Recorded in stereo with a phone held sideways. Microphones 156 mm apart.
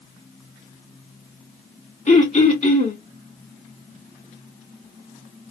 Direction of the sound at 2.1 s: 45° left (ahead or behind).